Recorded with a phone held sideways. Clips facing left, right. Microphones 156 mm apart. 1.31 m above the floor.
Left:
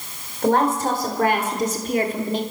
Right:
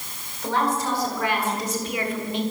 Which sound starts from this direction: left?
A woman speaking, at 0.4 s.